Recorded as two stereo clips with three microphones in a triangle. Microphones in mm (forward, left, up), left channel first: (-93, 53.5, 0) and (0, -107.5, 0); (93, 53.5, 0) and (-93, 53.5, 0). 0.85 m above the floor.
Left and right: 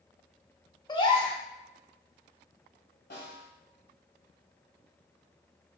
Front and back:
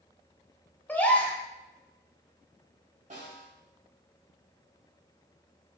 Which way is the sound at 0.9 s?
75° left.